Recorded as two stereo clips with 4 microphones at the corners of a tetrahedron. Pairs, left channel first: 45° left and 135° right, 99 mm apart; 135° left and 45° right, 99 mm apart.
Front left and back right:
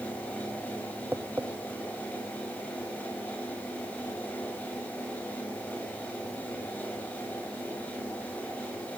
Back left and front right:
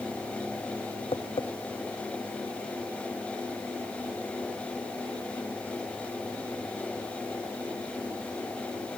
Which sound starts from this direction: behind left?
Tapping, at 1.1 s.